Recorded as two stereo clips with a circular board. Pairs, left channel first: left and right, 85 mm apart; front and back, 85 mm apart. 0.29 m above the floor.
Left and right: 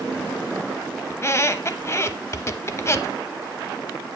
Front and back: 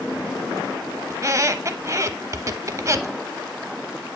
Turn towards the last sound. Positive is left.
turn(degrees=140)